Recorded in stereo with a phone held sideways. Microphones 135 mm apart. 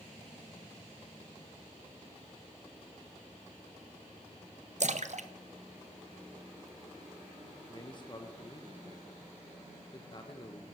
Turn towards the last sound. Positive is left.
turn(degrees=35)  # may be behind; listen again after turning